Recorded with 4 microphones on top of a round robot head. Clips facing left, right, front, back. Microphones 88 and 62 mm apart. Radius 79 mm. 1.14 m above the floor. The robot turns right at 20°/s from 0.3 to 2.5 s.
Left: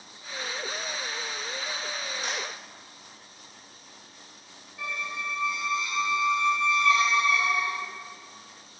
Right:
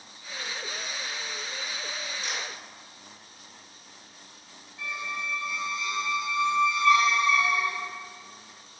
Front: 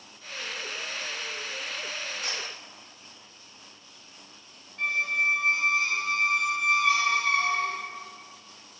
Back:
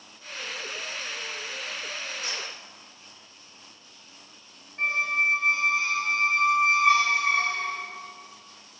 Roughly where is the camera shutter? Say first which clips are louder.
Left 2 dB, even; ahead left.